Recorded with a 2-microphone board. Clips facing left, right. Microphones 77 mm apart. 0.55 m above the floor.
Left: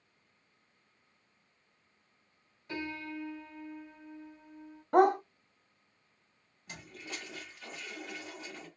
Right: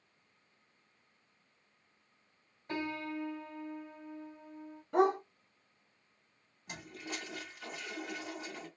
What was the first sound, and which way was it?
A piano, 40° right (ahead or behind).